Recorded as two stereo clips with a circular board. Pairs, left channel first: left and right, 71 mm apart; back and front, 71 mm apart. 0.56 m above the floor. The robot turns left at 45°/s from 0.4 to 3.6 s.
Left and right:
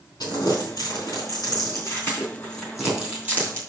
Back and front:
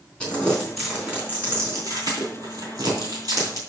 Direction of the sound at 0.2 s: 105° left.